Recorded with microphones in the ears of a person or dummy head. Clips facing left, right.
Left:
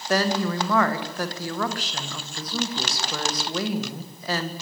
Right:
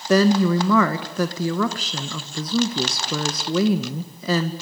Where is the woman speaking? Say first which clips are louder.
Right 7 dB; 75° right (ahead or behind), 1.6 m.